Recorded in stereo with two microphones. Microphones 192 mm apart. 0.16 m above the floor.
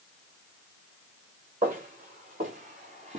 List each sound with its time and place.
1.6 s footsteps: 45° right (ahead or behind), 2.5 m; by 3.2 s 35° right (ahead or behind), 1.4 m